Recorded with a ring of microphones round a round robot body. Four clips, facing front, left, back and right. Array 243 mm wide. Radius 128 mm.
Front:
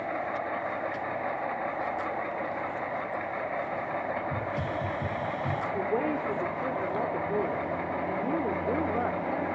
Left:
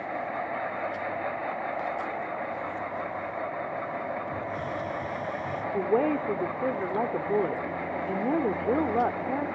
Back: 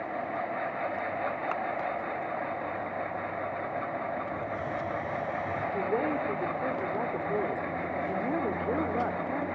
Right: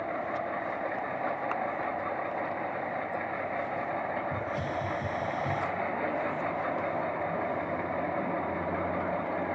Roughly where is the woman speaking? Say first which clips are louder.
Left 6 dB, even; left.